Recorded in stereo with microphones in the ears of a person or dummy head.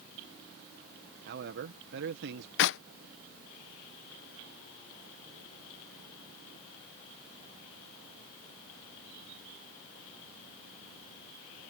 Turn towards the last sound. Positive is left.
turn(degrees=65)  # may be behind; listen again after turning